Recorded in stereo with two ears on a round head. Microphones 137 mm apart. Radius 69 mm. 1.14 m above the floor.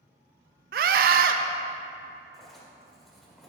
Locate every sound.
0.7 s a scream: 65° right (ahead or behind), 0.6 m
2.3 s writing: centre (ahead or behind), 1.7 m